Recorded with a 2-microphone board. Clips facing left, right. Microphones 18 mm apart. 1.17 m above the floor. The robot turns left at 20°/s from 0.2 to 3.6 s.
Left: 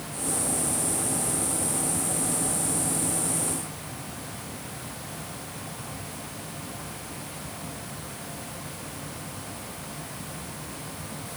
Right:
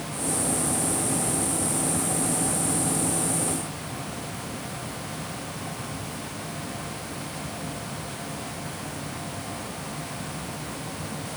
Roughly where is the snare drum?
No snare drum in this recording.